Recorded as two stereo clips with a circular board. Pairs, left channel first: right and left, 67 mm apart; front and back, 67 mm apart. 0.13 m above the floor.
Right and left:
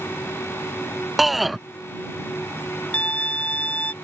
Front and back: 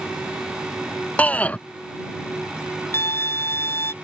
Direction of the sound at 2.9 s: 30° right.